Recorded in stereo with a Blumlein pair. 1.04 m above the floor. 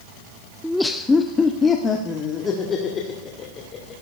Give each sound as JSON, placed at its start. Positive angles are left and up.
{"t": 0.6, "sound": "laughter", "azimuth_deg": 0, "distance_m": 0.6}